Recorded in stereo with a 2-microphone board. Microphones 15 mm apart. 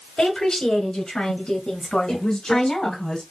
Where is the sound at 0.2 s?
70° left (ahead or behind), 3.5 m; by 3.0 s 50° left (ahead or behind), 2 m.